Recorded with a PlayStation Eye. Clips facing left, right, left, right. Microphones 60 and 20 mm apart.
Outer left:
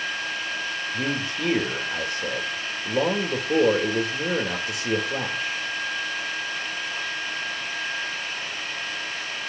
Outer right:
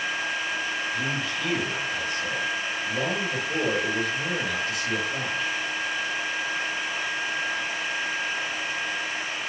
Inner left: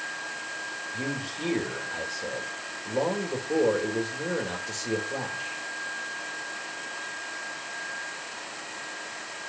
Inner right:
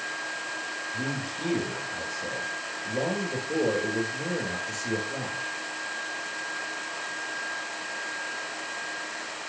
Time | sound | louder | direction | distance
0.9 | a man speaking | outer left 1 dB, inner left 1 dB | 50° left (ahead or behind) | 2.5 m